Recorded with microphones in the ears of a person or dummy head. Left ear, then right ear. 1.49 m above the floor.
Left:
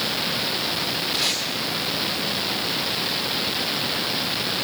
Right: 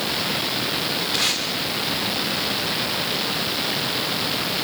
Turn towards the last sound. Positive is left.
turn(degrees=-25)  # may be behind; listen again after turning